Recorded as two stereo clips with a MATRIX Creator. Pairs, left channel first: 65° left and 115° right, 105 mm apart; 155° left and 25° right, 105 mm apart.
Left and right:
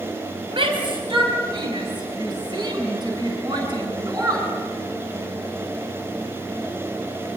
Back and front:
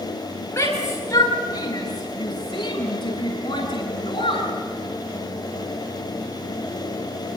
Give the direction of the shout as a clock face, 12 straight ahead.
5 o'clock.